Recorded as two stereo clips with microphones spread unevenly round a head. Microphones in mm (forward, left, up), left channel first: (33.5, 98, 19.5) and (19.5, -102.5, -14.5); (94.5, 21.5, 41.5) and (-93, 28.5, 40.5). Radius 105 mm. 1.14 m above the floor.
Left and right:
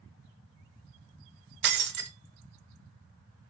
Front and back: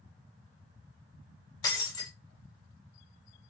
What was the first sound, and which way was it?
Breaking glass, 70° right.